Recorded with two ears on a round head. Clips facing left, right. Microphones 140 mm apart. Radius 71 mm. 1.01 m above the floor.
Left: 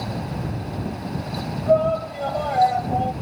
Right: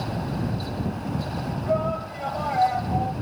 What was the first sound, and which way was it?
A shout, 45° left (ahead or behind).